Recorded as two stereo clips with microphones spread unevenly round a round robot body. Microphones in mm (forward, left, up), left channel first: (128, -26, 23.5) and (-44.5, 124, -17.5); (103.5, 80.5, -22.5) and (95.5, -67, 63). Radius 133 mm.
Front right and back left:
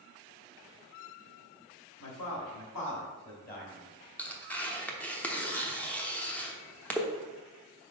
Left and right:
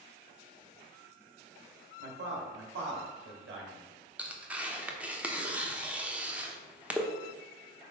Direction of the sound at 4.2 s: 55° left.